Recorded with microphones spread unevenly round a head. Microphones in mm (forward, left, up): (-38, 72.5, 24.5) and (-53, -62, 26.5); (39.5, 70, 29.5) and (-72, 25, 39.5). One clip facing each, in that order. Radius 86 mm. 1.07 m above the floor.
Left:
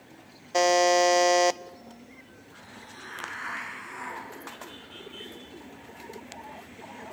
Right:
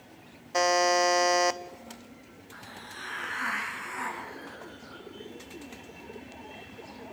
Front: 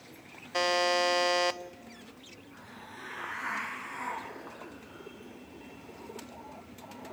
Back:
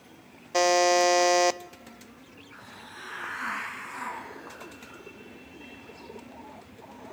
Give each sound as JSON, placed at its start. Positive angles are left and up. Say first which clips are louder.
{"t": 0.5, "sound": "a buzzer", "louder": "left 3 dB, back 7 dB", "azimuth_deg": 150, "distance_m": 0.6}
{"t": 2.5, "sound": "a hiss", "louder": "right 3 dB, back 1 dB", "azimuth_deg": -120, "distance_m": 5.5}